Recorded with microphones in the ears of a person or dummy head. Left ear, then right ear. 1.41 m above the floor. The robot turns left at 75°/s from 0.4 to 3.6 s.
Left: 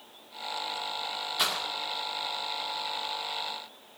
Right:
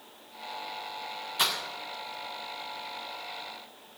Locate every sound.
1.4 s breaking glass: centre (ahead or behind), 2 m; by 1.6 s 15° left (ahead or behind), 2 m